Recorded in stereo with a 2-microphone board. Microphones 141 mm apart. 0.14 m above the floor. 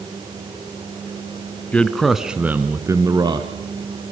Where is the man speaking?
10° left (ahead or behind), 1.1 m; by 3.5 s 30° right (ahead or behind), 1.3 m.